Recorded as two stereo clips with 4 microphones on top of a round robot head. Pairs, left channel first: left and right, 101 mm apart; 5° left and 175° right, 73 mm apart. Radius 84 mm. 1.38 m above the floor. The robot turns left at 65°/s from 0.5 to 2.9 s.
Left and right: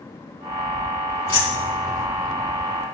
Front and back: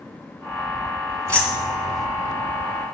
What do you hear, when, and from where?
1.3 s keys jangling: 150° left, 2.5 m; by 2.1 s 95° left, 2.5 m